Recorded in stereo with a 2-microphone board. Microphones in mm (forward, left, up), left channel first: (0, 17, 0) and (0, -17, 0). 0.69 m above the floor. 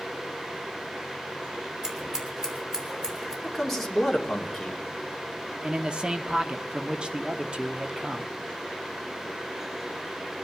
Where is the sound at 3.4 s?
5° left (ahead or behind), 2.0 m.